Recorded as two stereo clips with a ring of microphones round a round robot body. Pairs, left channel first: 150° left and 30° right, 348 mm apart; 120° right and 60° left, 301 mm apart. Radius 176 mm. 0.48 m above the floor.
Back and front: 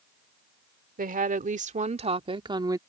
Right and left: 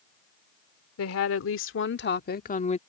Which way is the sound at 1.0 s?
90° right.